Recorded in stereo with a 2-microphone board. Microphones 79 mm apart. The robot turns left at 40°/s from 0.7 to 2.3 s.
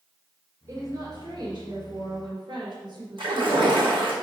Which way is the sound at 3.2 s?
85° right.